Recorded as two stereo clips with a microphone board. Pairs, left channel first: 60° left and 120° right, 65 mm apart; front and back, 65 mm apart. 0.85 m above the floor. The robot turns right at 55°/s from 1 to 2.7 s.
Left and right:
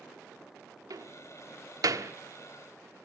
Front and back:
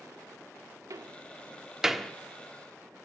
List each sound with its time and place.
0.9 s a door slam: 145° right, 1.3 m; by 2.1 s 80° right, 1.3 m